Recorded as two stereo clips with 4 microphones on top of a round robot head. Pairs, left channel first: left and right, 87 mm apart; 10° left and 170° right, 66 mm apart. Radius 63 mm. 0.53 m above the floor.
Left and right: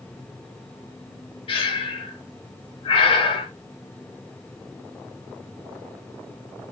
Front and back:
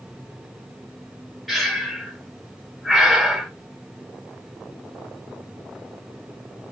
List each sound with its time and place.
1.5 s breathing: 95° left, 1.6 m